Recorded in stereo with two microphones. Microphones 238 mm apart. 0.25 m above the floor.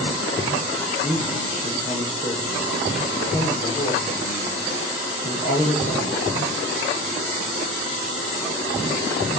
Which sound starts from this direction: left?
A man speaking, at 1.0 s.